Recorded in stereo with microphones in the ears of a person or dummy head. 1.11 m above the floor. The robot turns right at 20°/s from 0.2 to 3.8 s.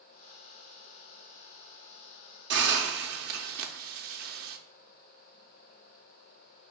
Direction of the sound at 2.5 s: 60° right (ahead or behind).